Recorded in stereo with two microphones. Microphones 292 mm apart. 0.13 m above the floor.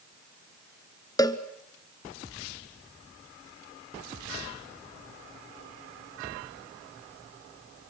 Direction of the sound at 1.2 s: 15° left (ahead or behind).